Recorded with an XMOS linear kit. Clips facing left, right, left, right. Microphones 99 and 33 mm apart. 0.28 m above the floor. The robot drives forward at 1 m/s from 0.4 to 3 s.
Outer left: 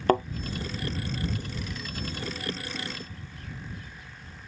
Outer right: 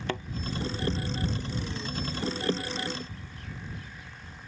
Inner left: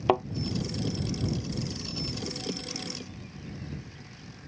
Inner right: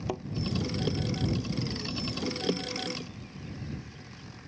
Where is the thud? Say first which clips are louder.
Outer left 12 dB, inner left 12 dB; 45° left (ahead or behind).